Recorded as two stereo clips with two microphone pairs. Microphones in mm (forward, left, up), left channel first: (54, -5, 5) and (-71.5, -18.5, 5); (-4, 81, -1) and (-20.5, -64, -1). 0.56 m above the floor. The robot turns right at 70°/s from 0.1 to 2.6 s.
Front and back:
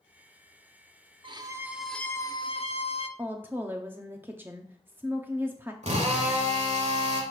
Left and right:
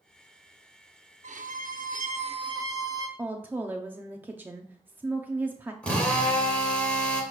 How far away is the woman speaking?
About 0.6 m.